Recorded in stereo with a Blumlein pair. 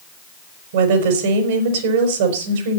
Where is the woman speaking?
55° right, 4.5 m.